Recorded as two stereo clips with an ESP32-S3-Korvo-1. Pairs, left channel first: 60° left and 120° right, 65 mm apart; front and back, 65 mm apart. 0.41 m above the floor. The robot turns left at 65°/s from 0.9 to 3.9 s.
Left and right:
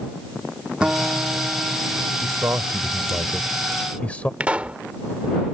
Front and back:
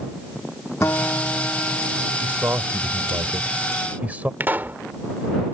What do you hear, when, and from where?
0.8 s a guitar: 45° right; by 2.1 s 125° right
2.2 s a man speaking: 125° right; by 4.3 s 125° left
4.4 s a pop: 170° right